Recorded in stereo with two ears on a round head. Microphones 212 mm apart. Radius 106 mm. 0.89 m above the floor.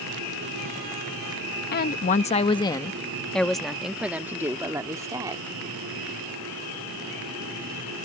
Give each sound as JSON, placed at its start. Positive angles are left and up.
{"t": 1.7, "sound": "a woman speaking", "side_deg": 45}